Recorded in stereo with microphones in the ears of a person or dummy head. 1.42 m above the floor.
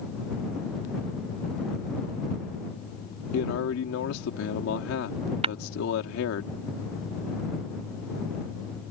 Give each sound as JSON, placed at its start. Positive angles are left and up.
{"t": 3.3, "sound": "a man speaking", "side_deg": 80}
{"t": 5.4, "sound": "tapping", "side_deg": -30}